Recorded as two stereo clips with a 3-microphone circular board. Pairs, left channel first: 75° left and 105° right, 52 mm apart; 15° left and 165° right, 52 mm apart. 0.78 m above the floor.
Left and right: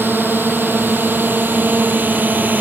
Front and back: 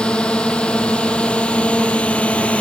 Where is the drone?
55° right; by 2.6 s 50° right.